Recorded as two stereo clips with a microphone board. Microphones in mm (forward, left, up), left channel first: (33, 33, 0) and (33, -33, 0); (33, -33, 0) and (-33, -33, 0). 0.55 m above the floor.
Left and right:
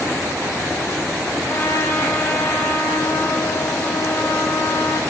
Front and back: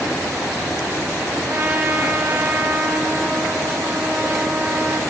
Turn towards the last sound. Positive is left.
turn(degrees=135)